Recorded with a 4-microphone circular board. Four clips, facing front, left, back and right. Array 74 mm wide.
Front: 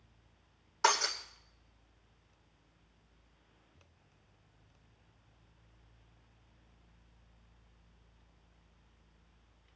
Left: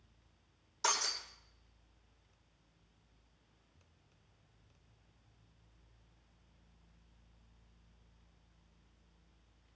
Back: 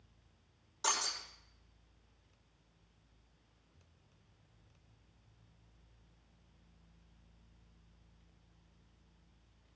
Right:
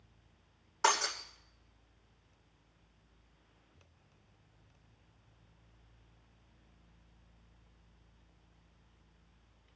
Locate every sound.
0.8 s breaking glass: 60° right, 9 m